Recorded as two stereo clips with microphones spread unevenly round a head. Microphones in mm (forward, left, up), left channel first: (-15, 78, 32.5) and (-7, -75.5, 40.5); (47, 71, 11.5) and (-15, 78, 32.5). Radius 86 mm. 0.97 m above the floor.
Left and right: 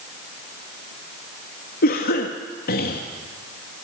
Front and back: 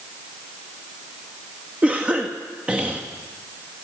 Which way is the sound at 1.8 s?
95° left.